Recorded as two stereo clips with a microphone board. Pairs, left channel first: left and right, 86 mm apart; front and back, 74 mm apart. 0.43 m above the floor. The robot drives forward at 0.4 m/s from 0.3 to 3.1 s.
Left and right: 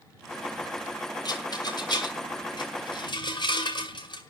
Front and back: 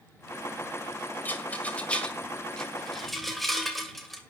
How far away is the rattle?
About 2 m.